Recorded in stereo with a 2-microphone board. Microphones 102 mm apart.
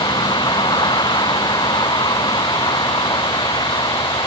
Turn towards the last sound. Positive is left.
turn(degrees=45)  # may be behind; listen again after turning